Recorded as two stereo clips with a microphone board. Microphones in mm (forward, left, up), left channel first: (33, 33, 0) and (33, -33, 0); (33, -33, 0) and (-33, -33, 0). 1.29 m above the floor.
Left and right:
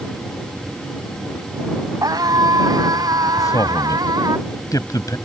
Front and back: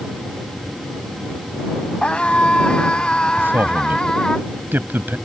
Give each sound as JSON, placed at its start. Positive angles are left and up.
{"t": 2.0, "sound": "a scream", "azimuth_deg": -75}
{"t": 3.4, "sound": "a man speaking", "azimuth_deg": 120}